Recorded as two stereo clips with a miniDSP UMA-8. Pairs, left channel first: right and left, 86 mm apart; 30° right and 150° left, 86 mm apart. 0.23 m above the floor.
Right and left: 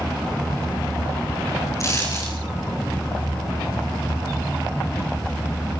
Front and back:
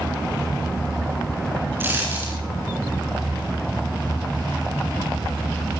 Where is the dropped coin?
145° right, 7.5 m.